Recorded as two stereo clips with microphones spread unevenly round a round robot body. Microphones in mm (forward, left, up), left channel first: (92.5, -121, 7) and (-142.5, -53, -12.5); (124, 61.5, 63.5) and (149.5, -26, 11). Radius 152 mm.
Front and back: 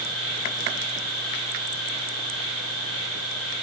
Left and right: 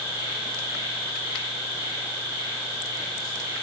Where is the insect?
25° right, 3 m.